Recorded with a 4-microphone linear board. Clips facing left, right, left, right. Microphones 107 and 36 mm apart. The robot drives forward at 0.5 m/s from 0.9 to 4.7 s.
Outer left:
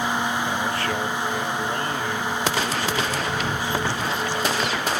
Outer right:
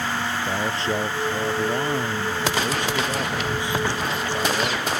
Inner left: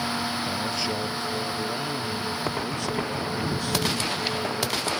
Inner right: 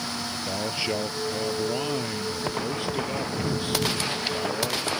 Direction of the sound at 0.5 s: 20° right (ahead or behind).